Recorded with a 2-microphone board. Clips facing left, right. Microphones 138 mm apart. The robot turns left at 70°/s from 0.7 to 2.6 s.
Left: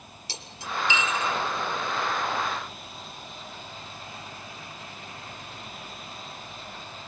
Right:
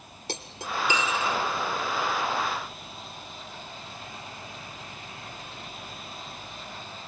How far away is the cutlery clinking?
About 1.6 m.